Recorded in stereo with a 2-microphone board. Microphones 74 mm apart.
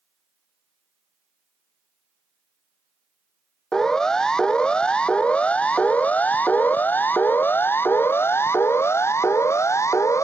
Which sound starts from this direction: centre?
A siren, at 3.7 s.